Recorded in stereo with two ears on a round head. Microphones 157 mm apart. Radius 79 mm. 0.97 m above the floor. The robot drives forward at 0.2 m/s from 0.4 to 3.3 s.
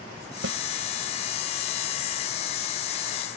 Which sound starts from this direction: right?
A snare drum, at 0.4 s.